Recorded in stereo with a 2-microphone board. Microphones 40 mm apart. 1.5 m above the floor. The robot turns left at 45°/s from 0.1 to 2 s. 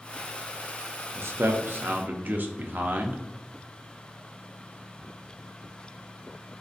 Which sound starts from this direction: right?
A man speaking, at 1.1 s.